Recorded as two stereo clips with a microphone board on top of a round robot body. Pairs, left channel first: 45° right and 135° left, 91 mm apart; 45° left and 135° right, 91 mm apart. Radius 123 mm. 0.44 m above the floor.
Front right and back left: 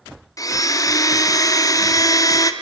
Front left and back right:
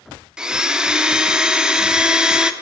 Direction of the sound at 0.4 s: 60° right.